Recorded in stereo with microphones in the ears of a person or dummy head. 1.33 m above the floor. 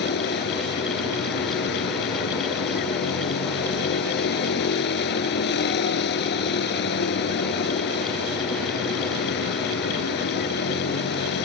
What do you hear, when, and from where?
0.0 s a vehicle: 65° left (ahead or behind)